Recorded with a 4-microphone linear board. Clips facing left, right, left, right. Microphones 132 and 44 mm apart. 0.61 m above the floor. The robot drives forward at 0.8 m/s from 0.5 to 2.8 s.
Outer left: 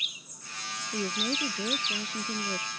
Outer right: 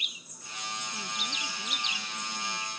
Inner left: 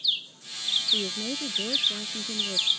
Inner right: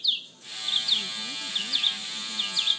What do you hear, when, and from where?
0.9 s a woman speaking: 75° left (ahead or behind); by 2.7 s 80° left